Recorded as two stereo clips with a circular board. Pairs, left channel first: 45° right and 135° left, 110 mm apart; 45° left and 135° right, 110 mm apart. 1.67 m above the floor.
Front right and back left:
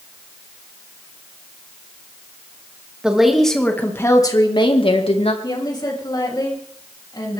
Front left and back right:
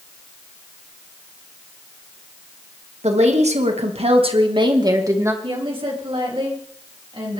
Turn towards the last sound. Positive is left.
turn(degrees=-95)